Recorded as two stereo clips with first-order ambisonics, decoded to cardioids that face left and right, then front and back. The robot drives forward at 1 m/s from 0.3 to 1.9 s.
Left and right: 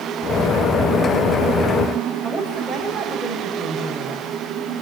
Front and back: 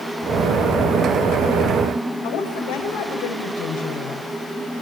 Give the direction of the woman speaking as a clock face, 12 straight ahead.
12 o'clock.